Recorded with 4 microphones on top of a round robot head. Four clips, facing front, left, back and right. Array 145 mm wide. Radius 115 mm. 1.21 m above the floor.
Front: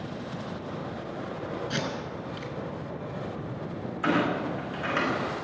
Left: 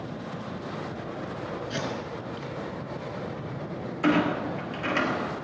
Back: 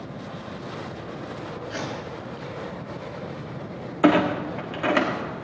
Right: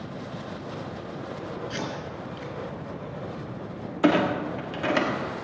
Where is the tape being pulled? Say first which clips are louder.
Left 1 dB, even; 5° right, 6.5 m.